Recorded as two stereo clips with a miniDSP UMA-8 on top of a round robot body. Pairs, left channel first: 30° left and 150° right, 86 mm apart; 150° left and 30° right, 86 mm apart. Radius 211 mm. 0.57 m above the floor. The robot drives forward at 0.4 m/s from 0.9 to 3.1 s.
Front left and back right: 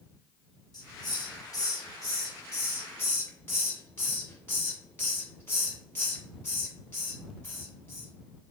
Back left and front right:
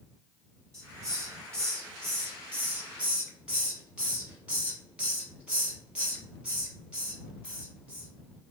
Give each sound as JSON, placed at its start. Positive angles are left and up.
{"t": 0.7, "sound": "a hiss", "azimuth_deg": 10, "distance_m": 1.8}